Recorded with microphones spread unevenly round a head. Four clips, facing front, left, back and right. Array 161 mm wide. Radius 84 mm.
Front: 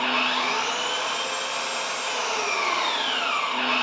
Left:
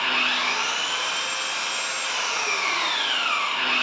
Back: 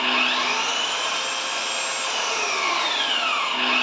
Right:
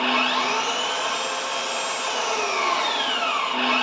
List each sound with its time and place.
0.0 s an engine running: 70° right, 1.3 m